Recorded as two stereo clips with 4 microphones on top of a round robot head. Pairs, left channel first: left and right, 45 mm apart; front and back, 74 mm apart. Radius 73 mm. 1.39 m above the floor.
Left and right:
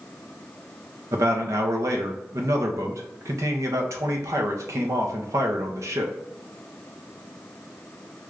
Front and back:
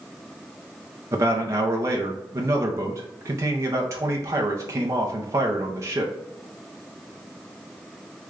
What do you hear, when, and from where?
1.1 s a man speaking: 120° right, 0.6 m